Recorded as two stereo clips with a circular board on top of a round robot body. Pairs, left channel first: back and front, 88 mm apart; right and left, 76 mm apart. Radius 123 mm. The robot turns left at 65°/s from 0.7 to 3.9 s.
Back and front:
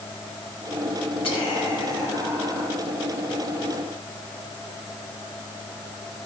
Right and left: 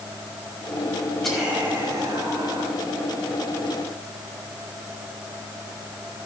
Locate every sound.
1.2 s whispering: 175° right, 5 m; by 2.8 s 85° left, 5 m